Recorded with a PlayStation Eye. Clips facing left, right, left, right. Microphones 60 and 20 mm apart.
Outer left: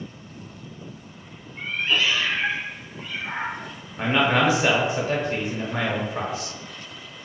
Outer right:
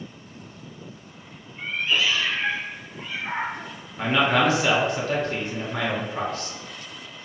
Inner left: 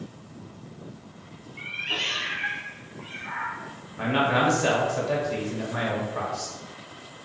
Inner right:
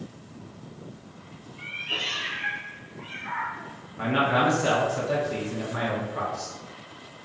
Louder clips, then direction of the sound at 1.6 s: Outer left 1 dB, inner left 1 dB; 75° left (ahead or behind).